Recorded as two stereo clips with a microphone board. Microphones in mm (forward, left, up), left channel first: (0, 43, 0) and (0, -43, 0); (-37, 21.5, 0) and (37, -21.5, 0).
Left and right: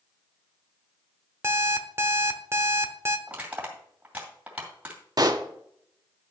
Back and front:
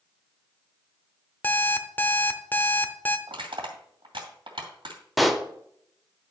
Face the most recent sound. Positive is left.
turn(degrees=-120)